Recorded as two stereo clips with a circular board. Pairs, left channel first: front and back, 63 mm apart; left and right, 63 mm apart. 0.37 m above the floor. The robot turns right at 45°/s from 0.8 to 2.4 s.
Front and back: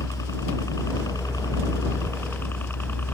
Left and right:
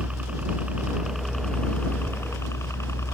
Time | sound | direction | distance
0.0 | a helicopter | 20° right | ?